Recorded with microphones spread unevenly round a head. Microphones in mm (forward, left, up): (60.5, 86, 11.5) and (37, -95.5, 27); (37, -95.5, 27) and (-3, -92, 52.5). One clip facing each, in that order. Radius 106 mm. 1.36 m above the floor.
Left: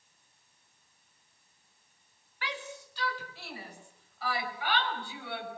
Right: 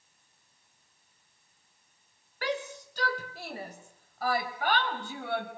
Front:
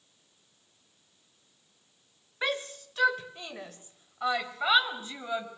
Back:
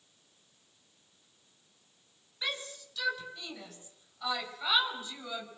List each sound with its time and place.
2.4 s a shout: 50° right, 4.5 m; by 5.5 s 55° right, 7 m